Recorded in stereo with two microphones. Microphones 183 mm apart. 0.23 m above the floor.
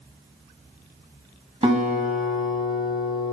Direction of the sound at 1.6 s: 35° right (ahead or behind).